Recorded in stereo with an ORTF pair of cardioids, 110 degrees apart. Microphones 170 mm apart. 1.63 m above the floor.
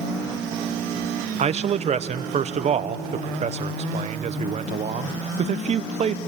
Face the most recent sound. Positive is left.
turn(degrees=-40)